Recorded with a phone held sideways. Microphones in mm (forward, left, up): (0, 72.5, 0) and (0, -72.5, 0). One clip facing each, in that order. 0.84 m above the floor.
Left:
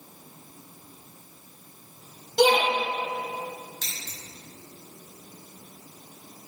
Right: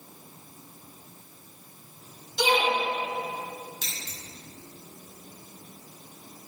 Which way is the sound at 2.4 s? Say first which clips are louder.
Left 5 dB; 70° left (ahead or behind).